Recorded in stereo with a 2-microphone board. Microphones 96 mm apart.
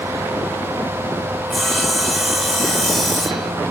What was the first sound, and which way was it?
Sawing, centre (ahead or behind).